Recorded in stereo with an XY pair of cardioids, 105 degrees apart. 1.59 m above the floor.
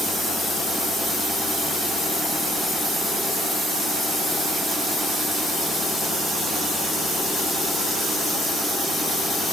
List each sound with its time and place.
Only background noise.